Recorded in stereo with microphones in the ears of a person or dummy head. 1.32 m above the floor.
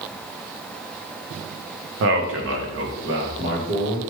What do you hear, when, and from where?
2.0 s a man speaking: 65° right (ahead or behind), 0.8 m; by 4.0 s 70° right (ahead or behind), 1.5 m